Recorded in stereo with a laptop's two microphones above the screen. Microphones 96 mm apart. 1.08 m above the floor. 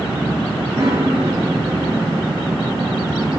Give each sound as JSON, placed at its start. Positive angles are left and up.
{"t": 0.8, "sound": "a piano", "side_deg": -35, "distance_m": 3.5}